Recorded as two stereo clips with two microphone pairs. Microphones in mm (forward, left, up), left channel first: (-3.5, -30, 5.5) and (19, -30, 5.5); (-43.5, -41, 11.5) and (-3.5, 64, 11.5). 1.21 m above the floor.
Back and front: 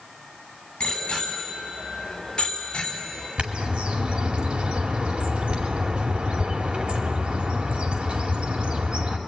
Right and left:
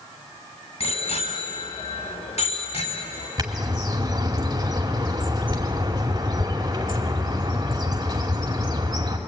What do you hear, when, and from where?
0.8 s a bicycle bell: 135° right, 6 m; by 3.3 s 125° right, 5 m
3.4 s a bird: 15° left, 2.5 m